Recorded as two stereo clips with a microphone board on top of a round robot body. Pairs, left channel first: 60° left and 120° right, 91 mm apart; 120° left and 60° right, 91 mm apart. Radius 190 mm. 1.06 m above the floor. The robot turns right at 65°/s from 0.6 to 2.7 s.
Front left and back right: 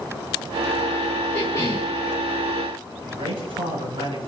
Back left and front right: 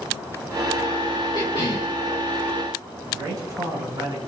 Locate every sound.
1.3 s a cough: 85° left, 2.5 m; by 1.9 s 120° left, 2.5 m
3.1 s a man speaking: 110° right, 8.5 m